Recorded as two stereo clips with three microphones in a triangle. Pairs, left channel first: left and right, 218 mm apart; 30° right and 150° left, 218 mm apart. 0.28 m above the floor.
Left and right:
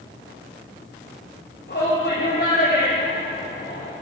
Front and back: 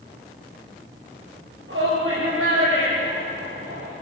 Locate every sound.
1.7 s a shout: 125° left, 6.5 m; by 3.9 s 130° left, 9.5 m